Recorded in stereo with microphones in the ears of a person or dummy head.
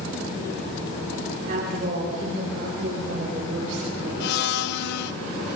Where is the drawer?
I don't hear a drawer.